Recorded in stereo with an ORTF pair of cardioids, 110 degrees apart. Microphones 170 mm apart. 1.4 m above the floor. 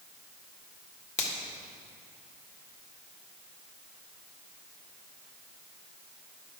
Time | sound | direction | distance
1.2 | a finger snap | 40° left | 1.6 m